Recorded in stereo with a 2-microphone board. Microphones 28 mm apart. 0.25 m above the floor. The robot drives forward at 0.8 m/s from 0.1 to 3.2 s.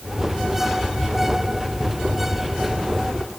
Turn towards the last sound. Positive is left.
No sound to turn to.